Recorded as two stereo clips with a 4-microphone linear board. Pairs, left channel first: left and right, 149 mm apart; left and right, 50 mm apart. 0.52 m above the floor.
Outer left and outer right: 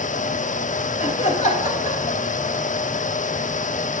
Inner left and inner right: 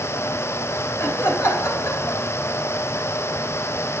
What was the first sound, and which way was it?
Laughter, 50° left (ahead or behind).